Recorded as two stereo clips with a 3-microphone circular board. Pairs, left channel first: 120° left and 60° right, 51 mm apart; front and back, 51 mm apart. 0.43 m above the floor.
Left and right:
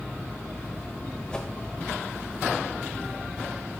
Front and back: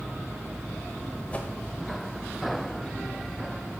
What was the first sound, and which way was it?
A whoosh, 50° left.